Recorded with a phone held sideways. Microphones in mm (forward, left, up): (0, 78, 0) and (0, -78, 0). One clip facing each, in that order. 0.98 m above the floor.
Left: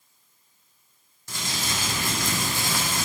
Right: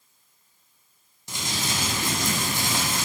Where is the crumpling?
20° right (ahead or behind), 0.7 m.